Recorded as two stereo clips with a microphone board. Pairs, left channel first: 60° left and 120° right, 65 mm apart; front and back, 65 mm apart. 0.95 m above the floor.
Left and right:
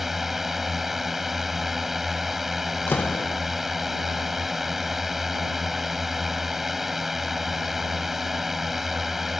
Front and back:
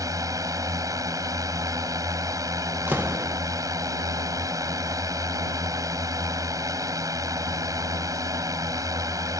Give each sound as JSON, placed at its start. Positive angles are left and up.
{"t": 0.0, "sound": "a drone", "azimuth_deg": 155}
{"t": 2.9, "sound": "a door slam", "azimuth_deg": 120}